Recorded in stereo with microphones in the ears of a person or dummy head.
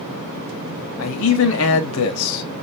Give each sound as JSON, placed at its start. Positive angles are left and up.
{"t": 1.0, "sound": "a man speaking", "side_deg": 70, "distance_m": 1.0}